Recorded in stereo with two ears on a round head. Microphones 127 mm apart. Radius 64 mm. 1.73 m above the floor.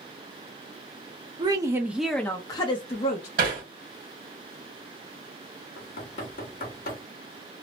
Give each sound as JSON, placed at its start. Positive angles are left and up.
{"t": 1.4, "sound": "a woman speaking", "side_deg": -30, "distance_m": 0.7}
{"t": 3.4, "sound": "hammering", "side_deg": -60, "distance_m": 1.3}
{"t": 5.8, "sound": "knocking", "side_deg": 65, "distance_m": 1.2}